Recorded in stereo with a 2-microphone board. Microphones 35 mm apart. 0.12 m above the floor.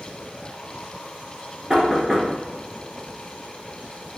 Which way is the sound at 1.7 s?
15° right (ahead or behind).